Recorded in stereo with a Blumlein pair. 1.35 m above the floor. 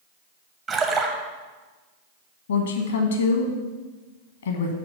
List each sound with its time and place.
0.7 s a splash: 20° right, 0.9 m
2.5 s a woman speaking: 65° left, 1.1 m